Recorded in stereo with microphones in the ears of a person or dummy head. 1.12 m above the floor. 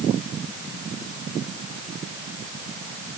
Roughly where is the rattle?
I don't hear a rattle.